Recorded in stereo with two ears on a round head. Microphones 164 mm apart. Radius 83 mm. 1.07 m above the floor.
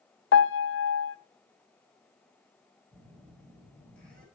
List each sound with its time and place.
0.3 s a piano: 75° left (ahead or behind), 0.7 m
2.9 s a phone buzzing: 5° left (ahead or behind), 6.5 m